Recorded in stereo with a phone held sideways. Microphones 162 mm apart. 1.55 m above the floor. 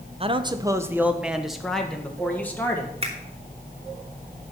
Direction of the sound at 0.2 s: 35° right (ahead or behind).